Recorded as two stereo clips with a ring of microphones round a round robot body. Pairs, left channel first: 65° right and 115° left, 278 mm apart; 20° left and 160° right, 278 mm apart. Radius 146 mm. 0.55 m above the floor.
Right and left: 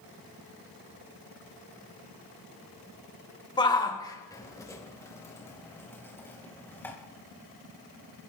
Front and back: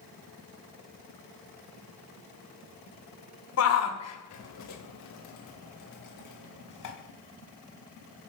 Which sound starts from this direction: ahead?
A shout, at 3.6 s.